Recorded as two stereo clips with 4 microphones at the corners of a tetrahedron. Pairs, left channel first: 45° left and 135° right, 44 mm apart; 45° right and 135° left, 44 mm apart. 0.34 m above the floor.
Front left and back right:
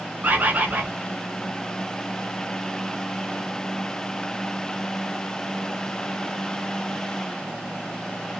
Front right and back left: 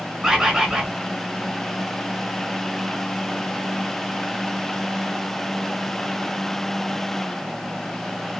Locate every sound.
0.2 s a bird: 160° right, 0.7 m